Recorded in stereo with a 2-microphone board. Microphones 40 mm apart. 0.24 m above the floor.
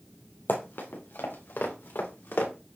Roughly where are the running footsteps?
Left.